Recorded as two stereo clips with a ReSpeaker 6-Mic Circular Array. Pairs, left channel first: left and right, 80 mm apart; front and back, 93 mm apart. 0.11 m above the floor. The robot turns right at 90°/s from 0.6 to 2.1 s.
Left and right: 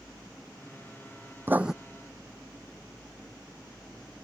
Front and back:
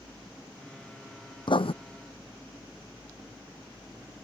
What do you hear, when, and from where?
1.5 s writing: 30° right; by 1.7 s 5° right